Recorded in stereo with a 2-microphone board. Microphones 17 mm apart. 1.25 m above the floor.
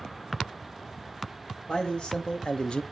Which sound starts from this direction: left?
A man speaking, at 1.7 s.